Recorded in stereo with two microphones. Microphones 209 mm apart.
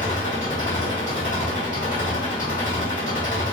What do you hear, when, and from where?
0.0 s an engine running: 40° left (ahead or behind), 1.5 m